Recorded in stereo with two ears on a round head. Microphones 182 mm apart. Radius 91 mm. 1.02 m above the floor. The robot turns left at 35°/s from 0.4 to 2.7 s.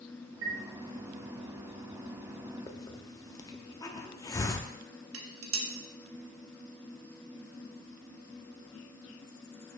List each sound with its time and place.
0.4 s a chime: 70° right (ahead or behind), 1.8 m; by 0.6 s 65° right (ahead or behind), 1.8 m
2.7 s a hiss: 20° left (ahead or behind), 0.6 m; by 4.7 s 15° left (ahead or behind), 0.6 m
5.1 s dishes clattering: 75° right (ahead or behind), 1.0 m